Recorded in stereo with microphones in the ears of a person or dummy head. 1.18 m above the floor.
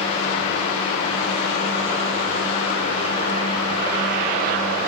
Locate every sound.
0.0 s a fan: 25° left (ahead or behind), 3.5 m